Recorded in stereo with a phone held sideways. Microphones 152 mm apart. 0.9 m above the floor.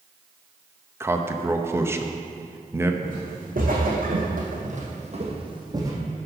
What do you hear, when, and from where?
1.0 s a man speaking: 15° right (ahead or behind), 0.7 m
3.0 s footsteps: 65° right (ahead or behind), 3 m; by 5.9 s 20° right (ahead or behind), 2 m